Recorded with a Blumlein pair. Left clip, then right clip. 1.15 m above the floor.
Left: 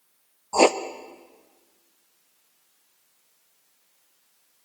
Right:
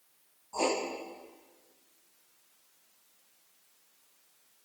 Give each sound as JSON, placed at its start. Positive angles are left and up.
{"t": 0.5, "sound": "writing", "azimuth_deg": 35, "distance_m": 0.6}